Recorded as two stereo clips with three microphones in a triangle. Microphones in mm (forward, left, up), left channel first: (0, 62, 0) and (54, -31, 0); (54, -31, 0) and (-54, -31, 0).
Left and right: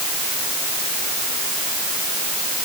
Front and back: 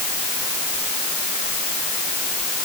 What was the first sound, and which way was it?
Only background noise.